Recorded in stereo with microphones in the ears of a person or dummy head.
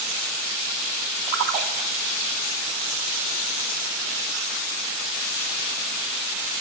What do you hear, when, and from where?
1.3 s a splash: 50° right (ahead or behind), 1.7 m